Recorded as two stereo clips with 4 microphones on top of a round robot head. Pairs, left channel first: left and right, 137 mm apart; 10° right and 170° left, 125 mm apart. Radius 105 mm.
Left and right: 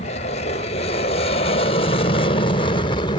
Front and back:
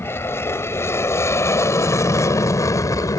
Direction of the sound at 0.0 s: 60° left.